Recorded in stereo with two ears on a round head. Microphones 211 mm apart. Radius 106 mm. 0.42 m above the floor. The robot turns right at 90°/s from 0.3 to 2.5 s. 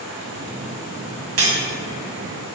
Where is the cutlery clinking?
60° right (ahead or behind), 2 m; by 1.6 s 75° right (ahead or behind), 2 m.